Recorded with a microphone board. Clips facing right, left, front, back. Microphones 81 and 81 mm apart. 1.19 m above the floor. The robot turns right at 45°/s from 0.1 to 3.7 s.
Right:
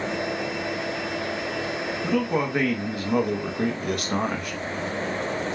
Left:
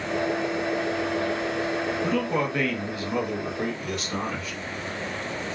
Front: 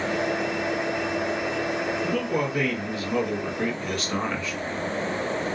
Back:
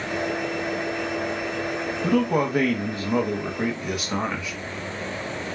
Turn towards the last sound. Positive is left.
turn(degrees=-100)